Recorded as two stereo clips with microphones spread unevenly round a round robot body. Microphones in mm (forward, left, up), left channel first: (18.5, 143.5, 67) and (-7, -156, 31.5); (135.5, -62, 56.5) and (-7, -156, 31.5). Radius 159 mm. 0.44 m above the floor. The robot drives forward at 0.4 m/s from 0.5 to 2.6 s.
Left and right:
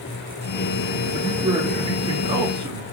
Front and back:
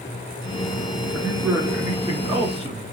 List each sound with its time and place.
1.1 s a man speaking: 75° right, 0.9 m; by 2.8 s 150° right, 1.0 m